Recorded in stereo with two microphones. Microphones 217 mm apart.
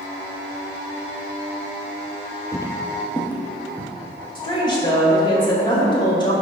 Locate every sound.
2.5 s footsteps: 15° left (ahead or behind), 0.6 m; by 3.9 s 5° left (ahead or behind), 1.2 m
4.3 s a woman speaking: 20° left (ahead or behind), 1.9 m